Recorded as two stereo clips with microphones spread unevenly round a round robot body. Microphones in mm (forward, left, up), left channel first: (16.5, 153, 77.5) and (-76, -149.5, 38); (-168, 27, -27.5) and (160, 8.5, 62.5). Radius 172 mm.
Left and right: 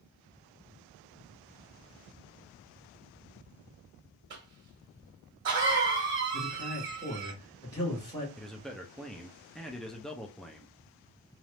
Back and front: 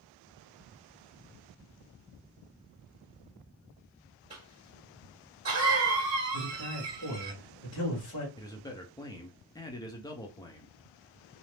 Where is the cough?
80° right, 1.6 m.